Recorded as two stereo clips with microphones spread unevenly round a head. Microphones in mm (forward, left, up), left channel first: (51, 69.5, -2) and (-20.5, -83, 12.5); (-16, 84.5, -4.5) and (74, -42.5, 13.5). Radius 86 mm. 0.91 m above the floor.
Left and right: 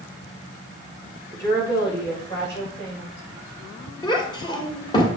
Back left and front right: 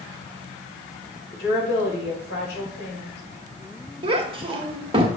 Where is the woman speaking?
135° left, 4.5 m.